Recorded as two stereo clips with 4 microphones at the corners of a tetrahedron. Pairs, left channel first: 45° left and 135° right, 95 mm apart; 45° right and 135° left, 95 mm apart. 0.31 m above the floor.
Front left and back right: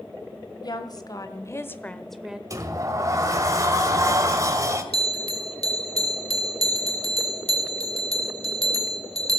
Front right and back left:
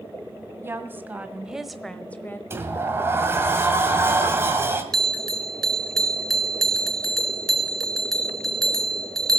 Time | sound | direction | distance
0.6 | a woman speaking | 75° left | 1.8 m
2.5 | a sliding door | 170° right | 1.9 m
4.9 | a bell | 40° left | 1.4 m